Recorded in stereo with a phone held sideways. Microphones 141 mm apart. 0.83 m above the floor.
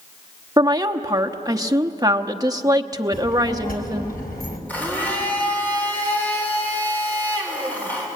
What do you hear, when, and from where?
0.6 s a woman speaking: 25° right (ahead or behind), 1.1 m
3.1 s a child speaking: 80° left, 3.5 m
4.7 s a blender: 10° left (ahead or behind), 3.5 m